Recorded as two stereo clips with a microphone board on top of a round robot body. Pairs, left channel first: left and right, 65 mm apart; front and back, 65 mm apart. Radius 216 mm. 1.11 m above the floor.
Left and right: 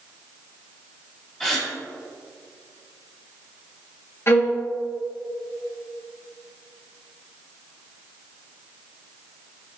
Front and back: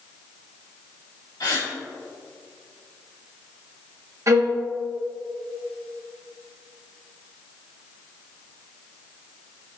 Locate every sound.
1.4 s a gasp: 10° left, 2.5 m
4.3 s a violin: 140° left, 1.2 m